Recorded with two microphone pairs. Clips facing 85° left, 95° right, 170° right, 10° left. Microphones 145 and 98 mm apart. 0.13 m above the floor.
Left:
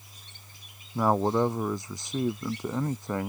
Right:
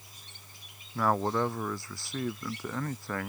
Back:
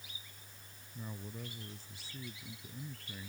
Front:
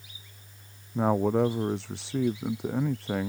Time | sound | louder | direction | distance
0.9 | a man speaking | left 4 dB, front 24 dB | 15° left | ?